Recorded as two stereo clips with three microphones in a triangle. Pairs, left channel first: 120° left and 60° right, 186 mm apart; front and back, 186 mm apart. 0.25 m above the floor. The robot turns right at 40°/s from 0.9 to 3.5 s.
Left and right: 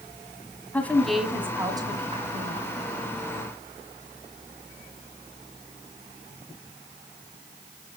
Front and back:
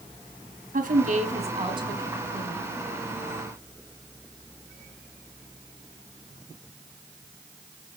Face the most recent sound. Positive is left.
turn(degrees=-55)